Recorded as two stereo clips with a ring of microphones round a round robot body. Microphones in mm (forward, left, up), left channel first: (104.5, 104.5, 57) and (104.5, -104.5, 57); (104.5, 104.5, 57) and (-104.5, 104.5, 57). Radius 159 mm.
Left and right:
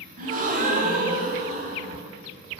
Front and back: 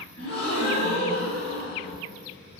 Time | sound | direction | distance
0.2 | a gasp | 50° right | 1.0 m